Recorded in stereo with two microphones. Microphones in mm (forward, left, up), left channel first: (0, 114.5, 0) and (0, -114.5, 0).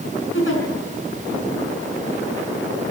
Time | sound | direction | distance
0.3 | a giggle | 60° left (ahead or behind) | 6 m